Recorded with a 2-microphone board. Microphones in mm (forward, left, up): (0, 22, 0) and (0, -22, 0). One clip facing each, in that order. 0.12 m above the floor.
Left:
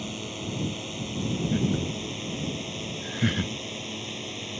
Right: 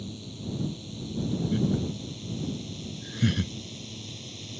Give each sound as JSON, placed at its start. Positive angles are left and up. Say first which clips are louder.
{"t": 0.0, "sound": "a drone", "louder": "left 5 dB", "side_deg": 60}
{"t": 1.5, "sound": "laughter", "louder": "even", "side_deg": 25}